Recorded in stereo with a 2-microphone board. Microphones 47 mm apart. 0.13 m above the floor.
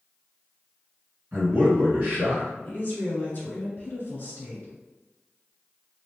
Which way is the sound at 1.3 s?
35° right (ahead or behind).